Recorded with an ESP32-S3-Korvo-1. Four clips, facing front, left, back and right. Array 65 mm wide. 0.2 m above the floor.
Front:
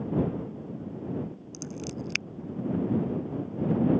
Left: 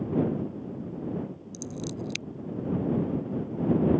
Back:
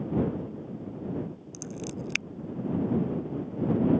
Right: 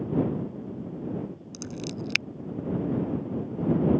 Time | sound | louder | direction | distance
1.5 | scissors | even, even | 100° right | ?